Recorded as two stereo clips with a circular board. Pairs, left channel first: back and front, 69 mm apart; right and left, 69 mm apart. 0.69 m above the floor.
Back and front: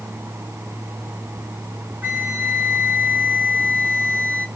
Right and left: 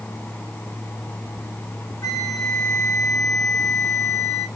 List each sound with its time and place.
2.0 s a flute: 65° right, 1.2 m